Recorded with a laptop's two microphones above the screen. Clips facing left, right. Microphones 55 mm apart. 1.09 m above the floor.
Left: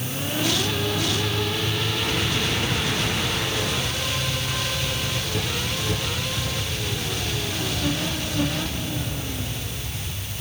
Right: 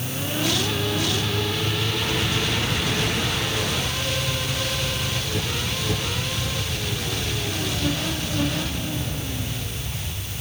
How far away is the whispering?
I don't hear whispering.